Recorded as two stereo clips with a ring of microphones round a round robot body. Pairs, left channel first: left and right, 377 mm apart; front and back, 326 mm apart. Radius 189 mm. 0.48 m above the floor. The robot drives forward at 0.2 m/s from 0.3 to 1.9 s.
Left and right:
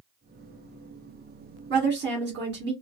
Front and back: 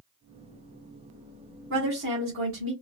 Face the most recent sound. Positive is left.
turn(degrees=-145)